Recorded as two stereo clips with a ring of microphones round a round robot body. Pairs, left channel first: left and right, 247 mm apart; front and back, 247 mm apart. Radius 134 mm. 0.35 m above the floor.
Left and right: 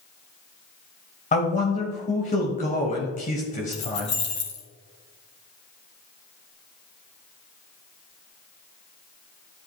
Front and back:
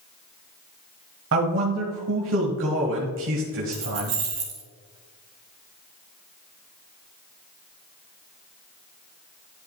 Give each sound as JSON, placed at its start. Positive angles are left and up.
{"t": 1.3, "sound": "a man speaking", "azimuth_deg": 145, "distance_m": 1.7}
{"t": 3.7, "sound": "keys jangling", "azimuth_deg": 135, "distance_m": 3.0}